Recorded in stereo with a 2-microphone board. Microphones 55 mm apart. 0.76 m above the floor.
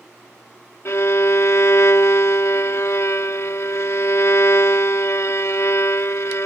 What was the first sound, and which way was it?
A violin, 65° left (ahead or behind).